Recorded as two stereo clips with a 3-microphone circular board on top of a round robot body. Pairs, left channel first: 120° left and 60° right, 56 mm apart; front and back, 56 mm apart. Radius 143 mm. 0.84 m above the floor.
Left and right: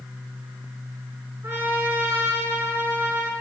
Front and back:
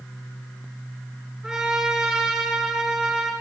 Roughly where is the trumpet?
Right.